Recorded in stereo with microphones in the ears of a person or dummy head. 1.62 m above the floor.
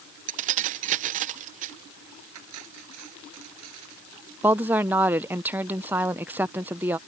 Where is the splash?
I don't hear a splash.